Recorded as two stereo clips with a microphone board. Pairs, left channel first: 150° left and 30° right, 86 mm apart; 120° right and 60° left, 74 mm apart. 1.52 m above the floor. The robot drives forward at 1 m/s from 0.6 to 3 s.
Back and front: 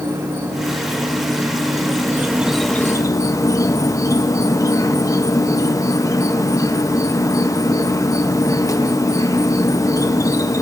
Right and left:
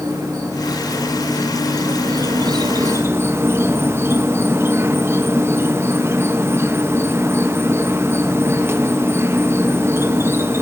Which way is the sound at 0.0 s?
10° left.